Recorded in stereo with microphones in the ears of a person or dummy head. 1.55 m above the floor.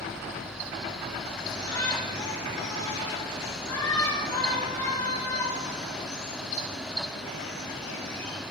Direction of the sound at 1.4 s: 15° left (ahead or behind).